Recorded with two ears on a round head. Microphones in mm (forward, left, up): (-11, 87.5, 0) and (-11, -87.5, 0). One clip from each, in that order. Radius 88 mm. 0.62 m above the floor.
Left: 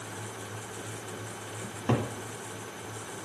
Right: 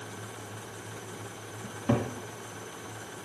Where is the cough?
I don't hear a cough.